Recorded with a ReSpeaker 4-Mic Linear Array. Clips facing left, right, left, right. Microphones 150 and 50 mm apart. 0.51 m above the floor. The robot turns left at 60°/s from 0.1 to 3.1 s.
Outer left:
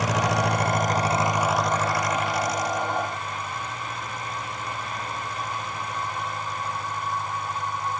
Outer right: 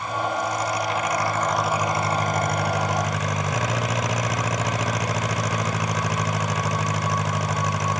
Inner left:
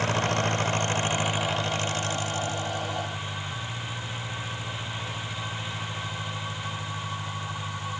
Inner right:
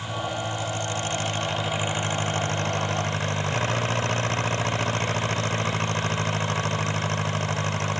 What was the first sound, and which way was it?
An engine running, 90° left.